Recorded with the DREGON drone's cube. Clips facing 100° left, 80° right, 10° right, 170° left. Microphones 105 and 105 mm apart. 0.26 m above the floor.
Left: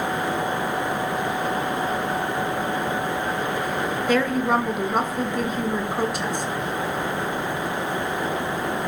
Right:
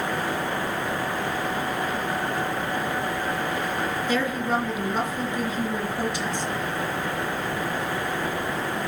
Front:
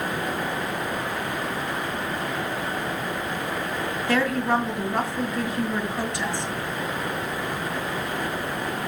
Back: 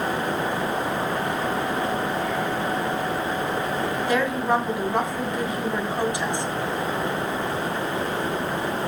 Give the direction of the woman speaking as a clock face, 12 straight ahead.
9 o'clock.